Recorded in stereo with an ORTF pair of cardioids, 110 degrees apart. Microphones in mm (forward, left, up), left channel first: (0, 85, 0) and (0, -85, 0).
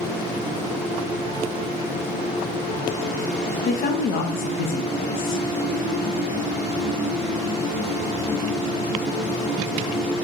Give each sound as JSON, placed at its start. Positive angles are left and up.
{"t": 3.6, "sound": "a woman speaking", "azimuth_deg": 60, "distance_m": 0.8}